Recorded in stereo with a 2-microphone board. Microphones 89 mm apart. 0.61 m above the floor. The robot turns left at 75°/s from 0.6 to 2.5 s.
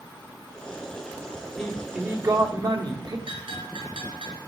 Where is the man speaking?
5° left, 1.7 m; by 3.2 s 65° right, 1.7 m.